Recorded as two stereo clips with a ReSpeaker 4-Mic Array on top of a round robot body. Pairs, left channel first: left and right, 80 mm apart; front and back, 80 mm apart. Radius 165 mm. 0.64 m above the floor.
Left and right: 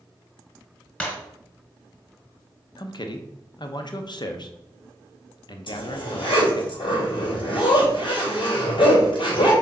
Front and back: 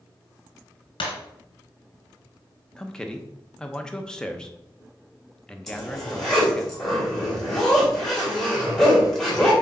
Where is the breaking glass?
15° left, 1.6 m.